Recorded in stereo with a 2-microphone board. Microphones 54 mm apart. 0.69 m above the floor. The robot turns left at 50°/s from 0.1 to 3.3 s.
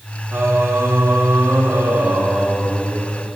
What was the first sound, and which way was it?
Singing, 50° right.